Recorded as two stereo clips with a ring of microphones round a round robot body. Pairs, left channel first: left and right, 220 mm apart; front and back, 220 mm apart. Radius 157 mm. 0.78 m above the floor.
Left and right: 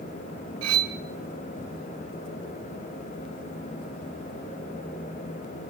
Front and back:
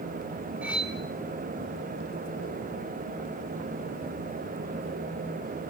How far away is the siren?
I don't hear a siren.